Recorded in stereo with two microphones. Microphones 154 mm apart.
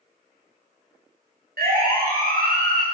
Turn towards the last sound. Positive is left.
turn(degrees=-70)  # may be behind; listen again after turning